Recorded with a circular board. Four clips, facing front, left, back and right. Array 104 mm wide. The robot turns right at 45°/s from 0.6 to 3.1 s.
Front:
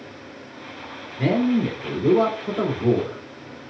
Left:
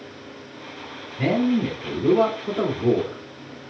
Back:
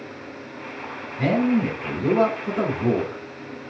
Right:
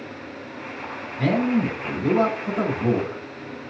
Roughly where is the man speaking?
Behind left.